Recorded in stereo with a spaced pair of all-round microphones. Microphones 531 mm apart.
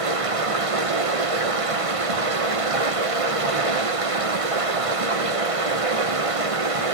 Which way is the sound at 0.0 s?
85° right.